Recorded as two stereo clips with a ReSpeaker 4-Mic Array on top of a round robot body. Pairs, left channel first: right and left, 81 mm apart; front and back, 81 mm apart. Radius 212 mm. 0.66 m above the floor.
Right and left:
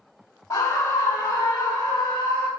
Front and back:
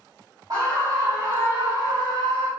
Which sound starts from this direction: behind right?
A scream, at 0.5 s.